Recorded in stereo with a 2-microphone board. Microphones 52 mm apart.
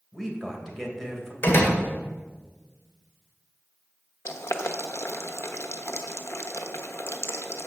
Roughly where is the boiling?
Left.